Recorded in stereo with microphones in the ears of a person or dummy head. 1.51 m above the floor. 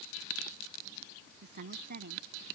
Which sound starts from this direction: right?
A woman speaking, at 1.4 s.